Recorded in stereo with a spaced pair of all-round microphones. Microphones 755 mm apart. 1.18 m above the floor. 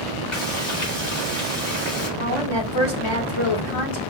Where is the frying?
40° left (ahead or behind), 3 m.